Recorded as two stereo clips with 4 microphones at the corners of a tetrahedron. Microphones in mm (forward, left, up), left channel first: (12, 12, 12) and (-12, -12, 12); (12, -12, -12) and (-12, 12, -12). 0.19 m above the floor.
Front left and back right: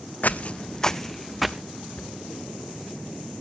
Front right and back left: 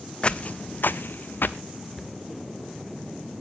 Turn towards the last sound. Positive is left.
turn(degrees=40)